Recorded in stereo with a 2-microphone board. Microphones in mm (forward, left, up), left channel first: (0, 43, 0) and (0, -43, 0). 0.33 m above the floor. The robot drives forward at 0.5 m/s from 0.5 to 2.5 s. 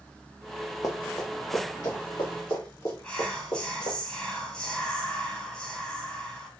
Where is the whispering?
15° left (ahead or behind), 0.8 m.